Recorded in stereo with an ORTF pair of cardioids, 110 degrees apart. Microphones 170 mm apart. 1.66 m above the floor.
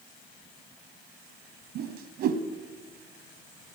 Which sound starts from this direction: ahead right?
A whoosh, at 1.8 s.